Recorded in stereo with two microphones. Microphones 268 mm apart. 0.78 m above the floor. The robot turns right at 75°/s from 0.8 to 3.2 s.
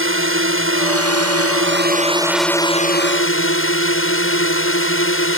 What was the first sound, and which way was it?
A drone, 120° right.